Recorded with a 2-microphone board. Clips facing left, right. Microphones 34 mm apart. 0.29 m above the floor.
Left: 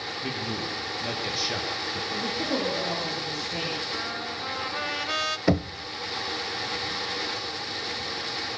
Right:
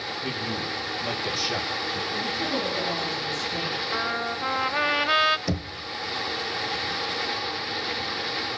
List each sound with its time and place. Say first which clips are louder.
0.2 s a man speaking: right 1 dB; 5° left (ahead or behind), 7 m; by 2.0 s centre (ahead or behind), 5 m
2.1 s a woman speaking: left 1 dB; 20° left (ahead or behind), 10 m
3.9 s a trumpet: right 5 dB; 30° right (ahead or behind), 0.7 m
5.5 s knocking: left 6 dB; 35° left (ahead or behind), 0.7 m